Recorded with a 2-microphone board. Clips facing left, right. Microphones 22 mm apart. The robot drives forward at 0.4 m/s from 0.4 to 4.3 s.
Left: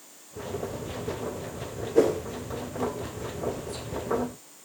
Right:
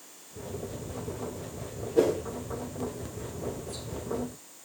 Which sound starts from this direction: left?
A whoosh, at 1.9 s.